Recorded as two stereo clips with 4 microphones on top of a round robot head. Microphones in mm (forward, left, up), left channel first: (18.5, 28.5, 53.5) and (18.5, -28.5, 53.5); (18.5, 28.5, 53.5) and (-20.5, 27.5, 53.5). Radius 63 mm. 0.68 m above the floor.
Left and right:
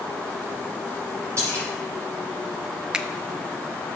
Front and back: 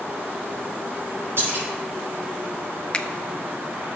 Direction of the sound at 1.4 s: 140° right.